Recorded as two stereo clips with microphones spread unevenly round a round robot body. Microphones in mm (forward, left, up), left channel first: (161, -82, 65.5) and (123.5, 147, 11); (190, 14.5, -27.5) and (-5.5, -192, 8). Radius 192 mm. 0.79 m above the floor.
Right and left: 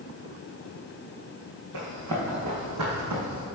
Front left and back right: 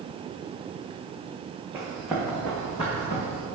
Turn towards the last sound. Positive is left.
turn(degrees=115)